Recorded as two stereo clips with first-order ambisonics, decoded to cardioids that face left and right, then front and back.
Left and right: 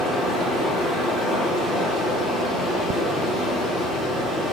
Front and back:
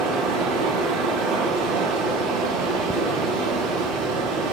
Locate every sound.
0.0 s running water: 165° left, 4 m